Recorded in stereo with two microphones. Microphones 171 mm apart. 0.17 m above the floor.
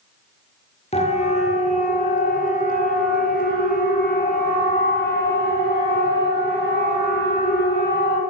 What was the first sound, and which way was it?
A siren, 40° left (ahead or behind).